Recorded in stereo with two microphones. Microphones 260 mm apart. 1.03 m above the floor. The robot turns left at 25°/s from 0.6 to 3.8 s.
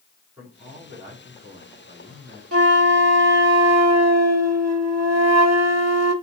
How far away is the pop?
No pop in this recording.